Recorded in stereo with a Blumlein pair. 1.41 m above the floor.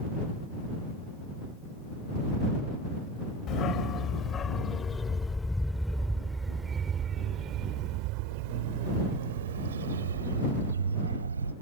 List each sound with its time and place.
3.5 s a dog barking: 30° left; by 11.5 s 75° right